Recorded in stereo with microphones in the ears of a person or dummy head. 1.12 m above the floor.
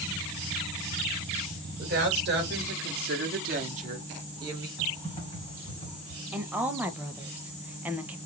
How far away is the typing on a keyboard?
About 1.6 m.